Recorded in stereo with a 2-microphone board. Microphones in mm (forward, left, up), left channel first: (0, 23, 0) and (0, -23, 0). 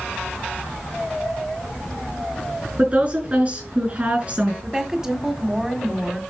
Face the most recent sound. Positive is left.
turn(degrees=-15)  # may be behind; listen again after turning